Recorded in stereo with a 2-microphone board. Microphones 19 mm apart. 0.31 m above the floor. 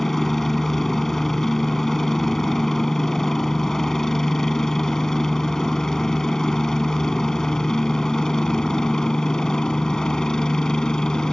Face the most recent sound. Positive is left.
turn(degrees=35)  # may be behind; listen again after turning